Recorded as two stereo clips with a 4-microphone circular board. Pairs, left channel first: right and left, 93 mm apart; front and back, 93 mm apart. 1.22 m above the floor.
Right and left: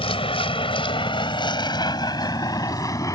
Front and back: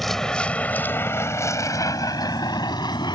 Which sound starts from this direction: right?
A vehicle, at 0.0 s.